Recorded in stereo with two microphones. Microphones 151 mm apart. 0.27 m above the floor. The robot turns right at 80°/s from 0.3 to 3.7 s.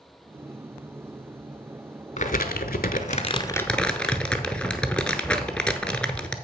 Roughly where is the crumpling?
Ahead left.